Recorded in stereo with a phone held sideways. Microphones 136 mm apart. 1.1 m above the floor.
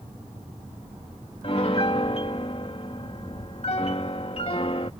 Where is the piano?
45° left (ahead or behind).